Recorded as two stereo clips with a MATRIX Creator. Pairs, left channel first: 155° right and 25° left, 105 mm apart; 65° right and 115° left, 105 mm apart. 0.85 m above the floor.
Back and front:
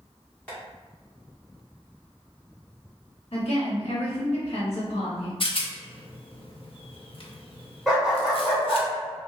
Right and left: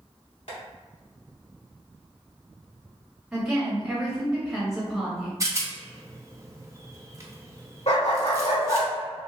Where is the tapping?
80° right, 1.8 m.